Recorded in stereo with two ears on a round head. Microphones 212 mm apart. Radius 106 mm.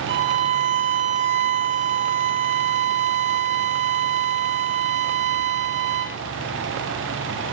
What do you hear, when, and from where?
0.1 s a violin: 50° right (ahead or behind), 1.1 m